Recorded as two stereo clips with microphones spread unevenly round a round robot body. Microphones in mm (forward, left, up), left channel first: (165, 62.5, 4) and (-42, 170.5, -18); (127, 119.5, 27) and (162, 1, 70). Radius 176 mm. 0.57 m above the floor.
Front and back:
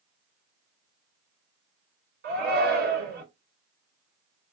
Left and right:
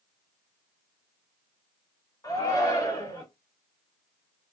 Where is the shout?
135° left, 1.8 m.